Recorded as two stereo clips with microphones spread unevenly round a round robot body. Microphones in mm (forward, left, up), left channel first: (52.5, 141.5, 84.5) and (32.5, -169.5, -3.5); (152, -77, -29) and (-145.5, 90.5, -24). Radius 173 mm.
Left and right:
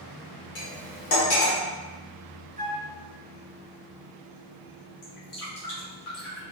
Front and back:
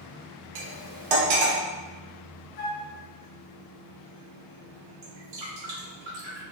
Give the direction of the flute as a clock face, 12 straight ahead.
1 o'clock.